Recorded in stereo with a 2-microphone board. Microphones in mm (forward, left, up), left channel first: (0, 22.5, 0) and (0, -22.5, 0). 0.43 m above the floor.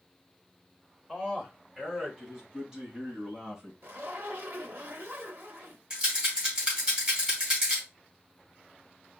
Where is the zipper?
60° right (ahead or behind), 0.9 m.